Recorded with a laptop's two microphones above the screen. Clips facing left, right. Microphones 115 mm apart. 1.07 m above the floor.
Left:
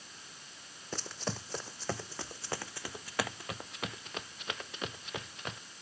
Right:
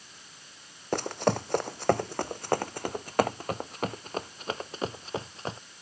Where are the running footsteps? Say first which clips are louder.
Right 13 dB; 65° right (ahead or behind); by 5.6 s 35° right (ahead or behind).